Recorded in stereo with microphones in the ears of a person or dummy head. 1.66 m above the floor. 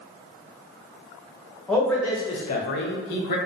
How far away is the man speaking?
About 1.0 m.